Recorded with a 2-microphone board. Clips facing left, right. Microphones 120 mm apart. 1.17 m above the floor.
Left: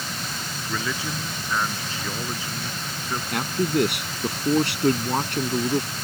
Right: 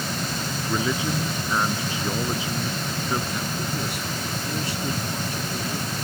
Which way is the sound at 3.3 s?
75° left (ahead or behind).